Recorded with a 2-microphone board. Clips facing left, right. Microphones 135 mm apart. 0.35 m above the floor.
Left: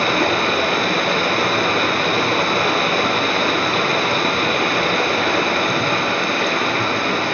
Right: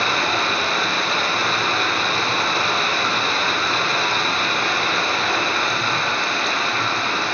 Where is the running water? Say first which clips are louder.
Left 4 dB; 60° left (ahead or behind), 0.9 m.